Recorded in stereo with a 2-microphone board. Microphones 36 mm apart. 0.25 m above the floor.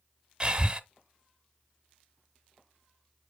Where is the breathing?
25° right (ahead or behind), 0.9 m.